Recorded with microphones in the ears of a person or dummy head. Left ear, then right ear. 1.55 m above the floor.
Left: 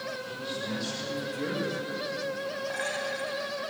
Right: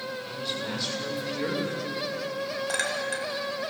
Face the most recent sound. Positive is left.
turn(degrees=-75)  # may be behind; listen again after turning